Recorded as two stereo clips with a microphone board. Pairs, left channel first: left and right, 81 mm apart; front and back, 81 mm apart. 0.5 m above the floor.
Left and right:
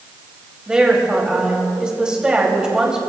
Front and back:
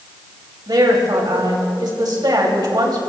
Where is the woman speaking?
170° right, 3 m.